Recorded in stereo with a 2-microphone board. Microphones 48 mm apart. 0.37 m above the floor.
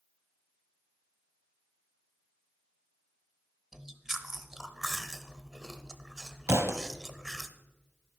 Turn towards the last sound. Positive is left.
turn(degrees=-70)  # may be behind; listen again after turning